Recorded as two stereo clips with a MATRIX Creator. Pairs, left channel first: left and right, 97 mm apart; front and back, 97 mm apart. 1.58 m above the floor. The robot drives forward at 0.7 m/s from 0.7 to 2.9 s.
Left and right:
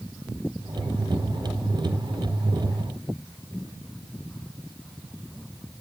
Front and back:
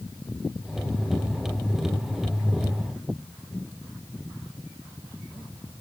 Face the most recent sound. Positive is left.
No sound to turn to.